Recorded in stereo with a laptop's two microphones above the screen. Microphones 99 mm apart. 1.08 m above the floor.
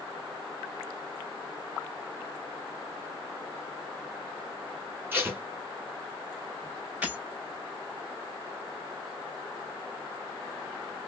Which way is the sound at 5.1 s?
20° right (ahead or behind).